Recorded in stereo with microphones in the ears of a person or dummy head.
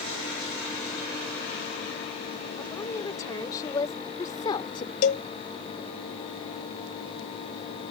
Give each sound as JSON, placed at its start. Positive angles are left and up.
{"t": 2.6, "sound": "a woman speaking", "side_deg": 25}
{"t": 5.0, "sound": "a cowbell", "side_deg": 45}